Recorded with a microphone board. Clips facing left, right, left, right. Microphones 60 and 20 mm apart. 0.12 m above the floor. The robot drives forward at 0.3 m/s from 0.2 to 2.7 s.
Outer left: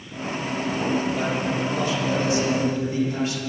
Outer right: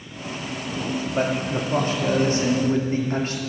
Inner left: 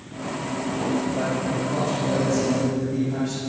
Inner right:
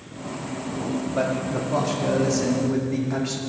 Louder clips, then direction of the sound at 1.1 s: Outer right 1 dB, even; 45° right (ahead or behind).